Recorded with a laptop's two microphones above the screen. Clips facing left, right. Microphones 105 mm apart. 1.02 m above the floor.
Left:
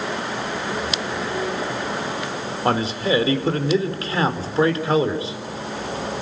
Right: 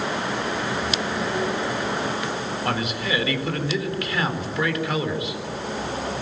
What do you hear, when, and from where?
2.6 s a man speaking: 35° left (ahead or behind), 4 m